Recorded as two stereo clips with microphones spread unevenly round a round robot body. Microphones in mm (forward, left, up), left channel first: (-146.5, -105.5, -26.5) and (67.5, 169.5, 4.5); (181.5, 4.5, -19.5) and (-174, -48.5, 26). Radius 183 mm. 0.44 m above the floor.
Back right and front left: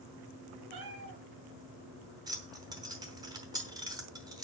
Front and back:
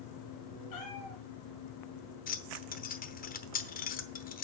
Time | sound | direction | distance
0.7 | a cat meowing | 45° left | 3 m
2.3 | keys jangling | 30° right | 0.9 m